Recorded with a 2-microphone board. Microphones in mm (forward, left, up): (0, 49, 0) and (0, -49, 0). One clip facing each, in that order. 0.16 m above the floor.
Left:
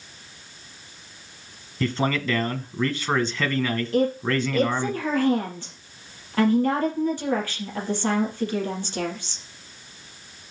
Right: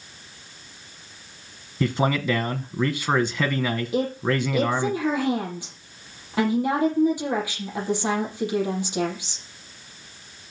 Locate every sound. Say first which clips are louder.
1.8 s a man speaking: right 2 dB; 10° right (ahead or behind), 1.0 m
3.9 s a woman speaking: left 3 dB; 10° right (ahead or behind), 5.5 m